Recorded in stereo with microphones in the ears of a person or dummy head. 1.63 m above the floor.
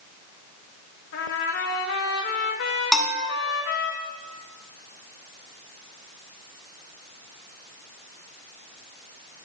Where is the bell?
Centre (ahead or behind), 0.9 m.